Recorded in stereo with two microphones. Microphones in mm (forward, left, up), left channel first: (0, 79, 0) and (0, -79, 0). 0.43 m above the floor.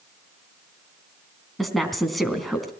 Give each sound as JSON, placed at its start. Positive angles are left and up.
{"t": 1.6, "sound": "a woman speaking", "side_deg": 0, "distance_m": 3.5}